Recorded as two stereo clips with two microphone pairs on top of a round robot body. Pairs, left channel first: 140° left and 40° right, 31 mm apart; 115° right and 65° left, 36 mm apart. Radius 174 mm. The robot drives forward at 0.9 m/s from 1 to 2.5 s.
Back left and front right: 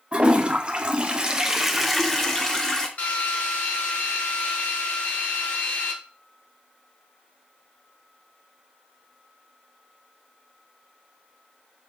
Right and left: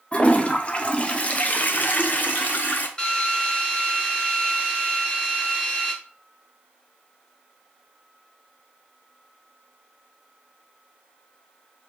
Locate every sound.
0.1 s a toilet flushing: 50° right, 1.3 m; by 2.9 s 145° right, 1.5 m
3.0 s a drill: straight behind, 1.9 m